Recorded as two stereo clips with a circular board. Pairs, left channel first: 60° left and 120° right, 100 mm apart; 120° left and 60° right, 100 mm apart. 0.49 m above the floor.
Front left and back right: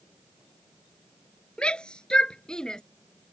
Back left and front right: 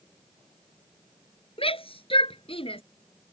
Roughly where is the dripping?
No dripping in this recording.